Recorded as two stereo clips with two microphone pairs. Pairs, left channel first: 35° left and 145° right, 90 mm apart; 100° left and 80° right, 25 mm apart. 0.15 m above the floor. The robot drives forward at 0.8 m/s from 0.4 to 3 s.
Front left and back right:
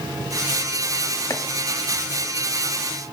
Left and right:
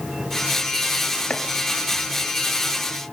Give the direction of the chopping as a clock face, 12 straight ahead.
9 o'clock.